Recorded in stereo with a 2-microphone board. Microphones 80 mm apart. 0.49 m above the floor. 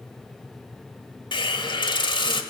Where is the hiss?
70° left (ahead or behind), 1.4 m.